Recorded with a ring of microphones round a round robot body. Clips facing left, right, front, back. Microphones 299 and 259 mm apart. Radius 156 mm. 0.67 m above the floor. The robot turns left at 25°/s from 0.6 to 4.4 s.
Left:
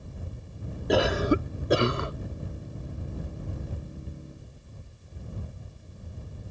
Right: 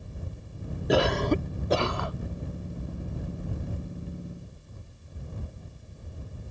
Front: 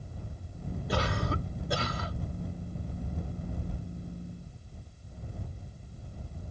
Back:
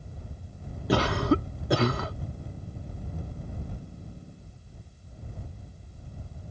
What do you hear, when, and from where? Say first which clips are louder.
0.9 s a cough: left 1 dB, back 10 dB; straight behind; by 2.1 s 150° left